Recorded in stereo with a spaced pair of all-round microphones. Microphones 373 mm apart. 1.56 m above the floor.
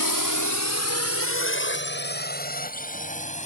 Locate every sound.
0.0 s a drone: 60° left (ahead or behind); by 3.5 s 15° left (ahead or behind)